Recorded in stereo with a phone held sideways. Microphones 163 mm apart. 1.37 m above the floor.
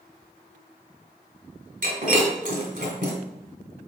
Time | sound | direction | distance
1.8 | breaking glass | 55° right (ahead or behind) | 2 m